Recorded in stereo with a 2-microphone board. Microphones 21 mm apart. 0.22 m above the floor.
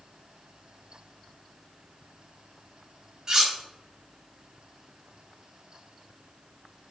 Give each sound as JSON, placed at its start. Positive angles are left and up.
{"t": 3.3, "sound": "cutlery clinking", "side_deg": -25, "distance_m": 1.0}